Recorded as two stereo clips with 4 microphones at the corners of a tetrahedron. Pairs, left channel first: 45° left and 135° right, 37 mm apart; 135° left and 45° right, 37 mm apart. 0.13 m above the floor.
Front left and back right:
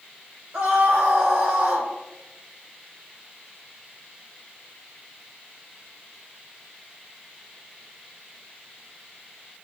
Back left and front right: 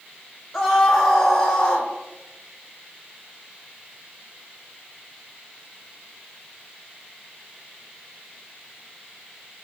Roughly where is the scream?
Behind right.